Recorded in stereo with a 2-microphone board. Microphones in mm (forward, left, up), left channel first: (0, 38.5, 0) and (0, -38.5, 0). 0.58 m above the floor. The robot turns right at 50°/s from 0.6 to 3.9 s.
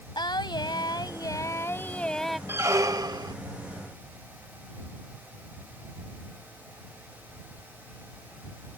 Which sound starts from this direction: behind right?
A squeak, at 2.5 s.